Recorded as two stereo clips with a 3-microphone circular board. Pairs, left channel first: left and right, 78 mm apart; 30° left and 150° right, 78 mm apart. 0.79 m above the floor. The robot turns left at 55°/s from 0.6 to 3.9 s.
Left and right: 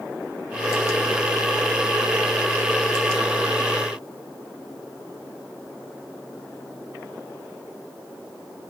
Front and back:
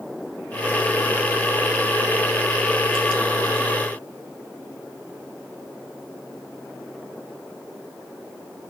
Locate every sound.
Only background noise.